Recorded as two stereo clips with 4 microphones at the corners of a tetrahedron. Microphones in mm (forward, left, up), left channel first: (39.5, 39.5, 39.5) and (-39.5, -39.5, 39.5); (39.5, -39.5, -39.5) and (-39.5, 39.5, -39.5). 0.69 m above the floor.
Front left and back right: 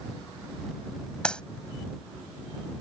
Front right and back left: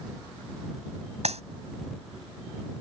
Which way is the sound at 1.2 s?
125° left.